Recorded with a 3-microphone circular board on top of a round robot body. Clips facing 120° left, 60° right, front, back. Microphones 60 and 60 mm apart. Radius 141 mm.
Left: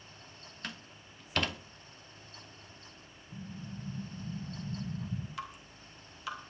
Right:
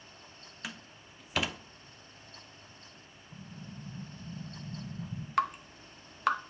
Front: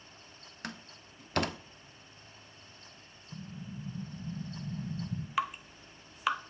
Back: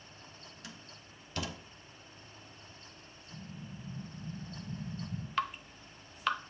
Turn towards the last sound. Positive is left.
turn(degrees=-80)